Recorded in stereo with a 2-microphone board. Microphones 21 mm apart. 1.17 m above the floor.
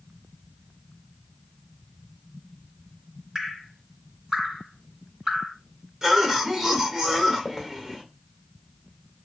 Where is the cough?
30° right (ahead or behind), 1.2 m.